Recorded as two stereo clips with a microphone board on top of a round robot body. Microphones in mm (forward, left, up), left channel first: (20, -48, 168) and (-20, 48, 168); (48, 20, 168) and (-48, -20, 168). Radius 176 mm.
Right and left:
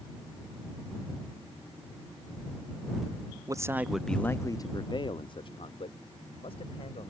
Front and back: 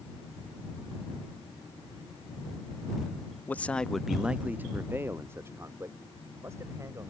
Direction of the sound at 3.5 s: 85° left.